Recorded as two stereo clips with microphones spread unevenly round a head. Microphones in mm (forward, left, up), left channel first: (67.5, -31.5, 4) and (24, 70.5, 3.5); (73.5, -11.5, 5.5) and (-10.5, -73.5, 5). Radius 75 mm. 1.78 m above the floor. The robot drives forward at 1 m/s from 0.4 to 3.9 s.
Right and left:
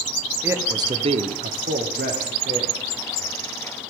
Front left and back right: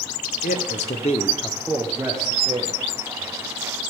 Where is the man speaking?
45° left, 1.1 m; by 2.8 s 155° left, 1.8 m.